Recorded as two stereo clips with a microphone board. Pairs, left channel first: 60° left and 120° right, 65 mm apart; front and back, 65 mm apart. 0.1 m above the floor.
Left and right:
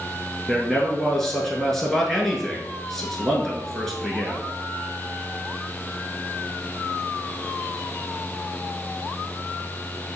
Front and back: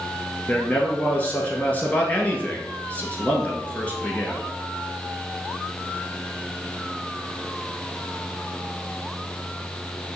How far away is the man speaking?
About 1.2 m.